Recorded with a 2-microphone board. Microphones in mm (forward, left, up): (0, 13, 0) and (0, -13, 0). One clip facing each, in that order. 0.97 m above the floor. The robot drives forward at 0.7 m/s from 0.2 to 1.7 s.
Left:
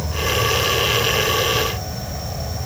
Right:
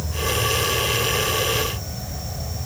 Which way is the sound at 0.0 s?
25° left (ahead or behind).